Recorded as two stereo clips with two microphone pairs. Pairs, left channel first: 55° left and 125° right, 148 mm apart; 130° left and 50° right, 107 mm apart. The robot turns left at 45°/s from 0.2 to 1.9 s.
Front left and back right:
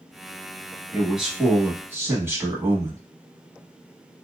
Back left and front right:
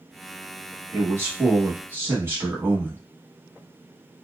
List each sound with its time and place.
0.9 s a man speaking: 35° right, 1.0 m; by 3.0 s 80° right, 1.0 m